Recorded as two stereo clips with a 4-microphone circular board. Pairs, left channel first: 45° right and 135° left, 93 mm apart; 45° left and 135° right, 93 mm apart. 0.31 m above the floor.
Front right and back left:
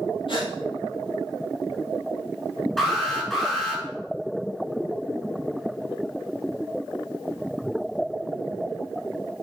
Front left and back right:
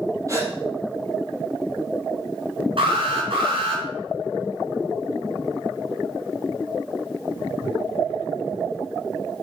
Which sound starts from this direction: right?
A gasp, at 0.3 s.